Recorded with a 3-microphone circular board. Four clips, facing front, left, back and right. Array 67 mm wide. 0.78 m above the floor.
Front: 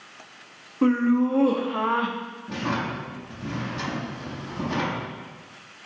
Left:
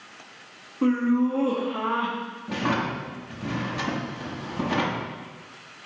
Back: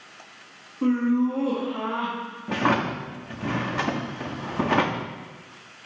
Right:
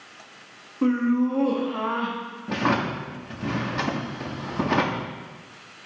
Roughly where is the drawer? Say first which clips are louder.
Right 2 dB, back 5 dB; behind right.